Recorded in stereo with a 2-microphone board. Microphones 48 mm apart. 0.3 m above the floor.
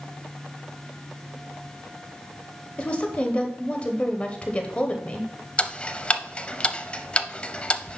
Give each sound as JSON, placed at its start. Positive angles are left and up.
{"t": 2.8, "sound": "a woman speaking", "side_deg": 25, "distance_m": 0.9}
{"t": 5.6, "sound": "ticking", "side_deg": 25, "distance_m": 0.5}